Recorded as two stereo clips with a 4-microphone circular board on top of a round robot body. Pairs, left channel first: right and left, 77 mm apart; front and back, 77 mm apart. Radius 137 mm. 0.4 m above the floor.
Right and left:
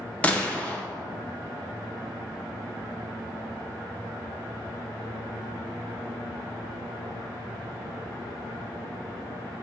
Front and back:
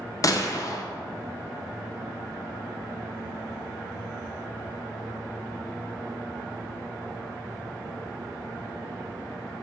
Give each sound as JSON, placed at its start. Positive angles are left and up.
{"t": 0.2, "sound": "a gunshot", "azimuth_deg": -20, "distance_m": 0.7}